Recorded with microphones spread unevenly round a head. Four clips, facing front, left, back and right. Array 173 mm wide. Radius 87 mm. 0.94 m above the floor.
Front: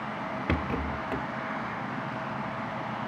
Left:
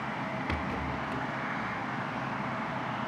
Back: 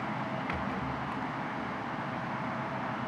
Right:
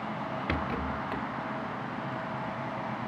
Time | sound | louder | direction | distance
0.5 | a rattle | right 1 dB, front 4 dB | 10° right | 1.1 m